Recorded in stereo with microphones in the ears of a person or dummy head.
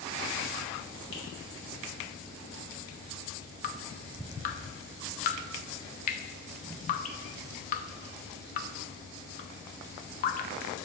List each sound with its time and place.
1.1 s a finger snap: 85° left, 1.9 m
3.6 s dripping: 50° left (ahead or behind), 0.6 m